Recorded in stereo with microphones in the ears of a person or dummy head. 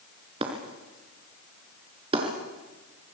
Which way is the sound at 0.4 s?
30° right (ahead or behind).